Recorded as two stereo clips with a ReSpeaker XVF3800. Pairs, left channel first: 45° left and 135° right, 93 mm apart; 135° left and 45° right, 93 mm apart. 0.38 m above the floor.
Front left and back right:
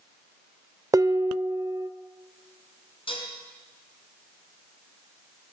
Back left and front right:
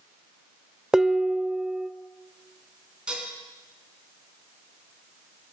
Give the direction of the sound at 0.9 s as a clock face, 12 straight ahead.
4 o'clock.